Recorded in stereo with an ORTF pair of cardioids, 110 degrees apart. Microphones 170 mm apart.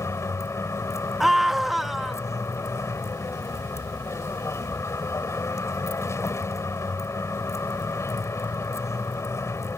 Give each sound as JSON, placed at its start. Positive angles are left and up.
{"t": 0.0, "sound": "a vehicle", "azimuth_deg": 15}
{"t": 1.2, "sound": "a scream", "azimuth_deg": 0}